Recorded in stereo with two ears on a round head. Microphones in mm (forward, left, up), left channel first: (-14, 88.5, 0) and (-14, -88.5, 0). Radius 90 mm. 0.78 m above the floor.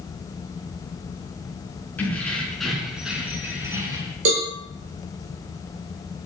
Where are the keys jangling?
10° left (ahead or behind), 5.5 m; by 4.2 s 20° right (ahead or behind), 5 m.